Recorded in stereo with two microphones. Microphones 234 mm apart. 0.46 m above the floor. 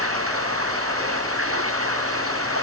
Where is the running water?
75° right (ahead or behind).